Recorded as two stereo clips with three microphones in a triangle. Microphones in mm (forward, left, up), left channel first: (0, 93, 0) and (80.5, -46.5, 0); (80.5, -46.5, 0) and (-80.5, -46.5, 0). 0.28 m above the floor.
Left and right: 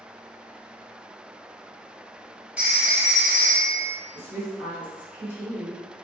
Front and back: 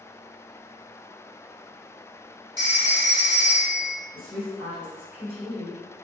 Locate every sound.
2.6 s a phone ringing: 135° right, 1.1 m
4.1 s a woman speaking: 115° right, 1.3 m